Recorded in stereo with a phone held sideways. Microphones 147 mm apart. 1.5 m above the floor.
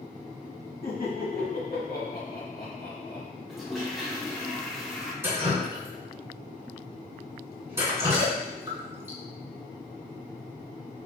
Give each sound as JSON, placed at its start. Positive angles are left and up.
{"t": 0.8, "sound": "laughter", "side_deg": 70, "distance_m": 0.9}
{"t": 3.5, "sound": "a toilet flushing", "side_deg": 0, "distance_m": 0.6}
{"t": 5.2, "sound": "dripping", "side_deg": -15, "distance_m": 1.5}